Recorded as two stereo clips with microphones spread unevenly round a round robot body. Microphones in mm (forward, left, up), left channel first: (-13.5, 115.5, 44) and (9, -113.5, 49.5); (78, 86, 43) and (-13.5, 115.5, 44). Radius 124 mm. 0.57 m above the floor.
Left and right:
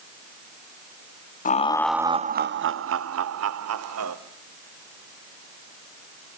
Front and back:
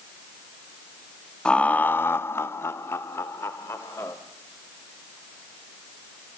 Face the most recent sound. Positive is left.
turn(degrees=-90)